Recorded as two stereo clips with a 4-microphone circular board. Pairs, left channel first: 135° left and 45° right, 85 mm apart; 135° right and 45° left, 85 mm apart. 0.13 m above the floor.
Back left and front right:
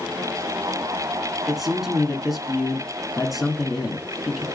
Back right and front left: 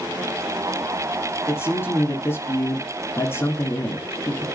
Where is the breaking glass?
I don't hear breaking glass.